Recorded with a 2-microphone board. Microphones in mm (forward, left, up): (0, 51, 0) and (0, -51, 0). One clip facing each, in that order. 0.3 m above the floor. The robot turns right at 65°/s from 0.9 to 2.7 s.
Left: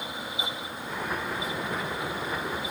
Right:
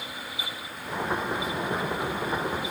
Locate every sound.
Only background noise.